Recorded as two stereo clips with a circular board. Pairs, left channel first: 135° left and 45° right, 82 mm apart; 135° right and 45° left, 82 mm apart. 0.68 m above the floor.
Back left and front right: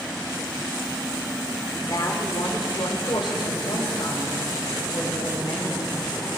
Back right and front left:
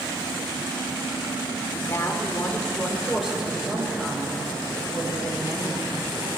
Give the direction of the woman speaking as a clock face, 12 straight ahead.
6 o'clock.